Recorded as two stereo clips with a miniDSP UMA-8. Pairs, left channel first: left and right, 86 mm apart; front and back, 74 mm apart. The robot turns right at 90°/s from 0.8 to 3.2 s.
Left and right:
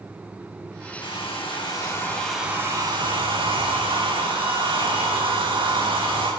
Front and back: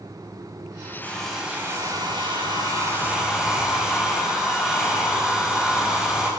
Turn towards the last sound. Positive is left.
turn(degrees=-100)